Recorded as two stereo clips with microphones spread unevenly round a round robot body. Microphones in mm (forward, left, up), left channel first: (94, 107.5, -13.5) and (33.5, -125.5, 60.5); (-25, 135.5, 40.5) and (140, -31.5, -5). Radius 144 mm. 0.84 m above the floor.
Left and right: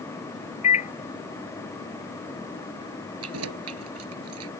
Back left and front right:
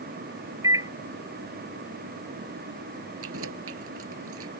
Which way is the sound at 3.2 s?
90° right.